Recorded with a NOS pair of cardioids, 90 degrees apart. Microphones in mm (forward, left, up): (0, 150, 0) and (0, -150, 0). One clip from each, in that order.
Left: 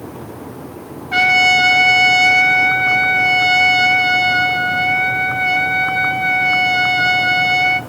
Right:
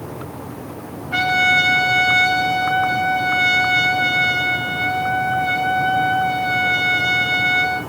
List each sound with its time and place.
1.1 s a trumpet: 70° left, 2 m